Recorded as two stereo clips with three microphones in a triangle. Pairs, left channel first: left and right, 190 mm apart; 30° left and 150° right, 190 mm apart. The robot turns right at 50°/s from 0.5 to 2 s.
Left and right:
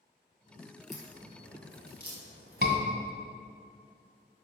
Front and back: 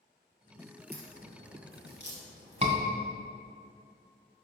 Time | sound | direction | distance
0.9 | a crack | straight behind | 2.5 m
2.6 | a scream | 100° right | 1.7 m